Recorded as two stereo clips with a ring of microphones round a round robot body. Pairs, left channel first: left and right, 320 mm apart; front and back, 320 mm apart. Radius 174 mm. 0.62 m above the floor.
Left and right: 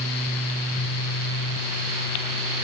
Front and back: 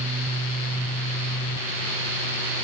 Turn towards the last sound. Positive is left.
No sound to turn to.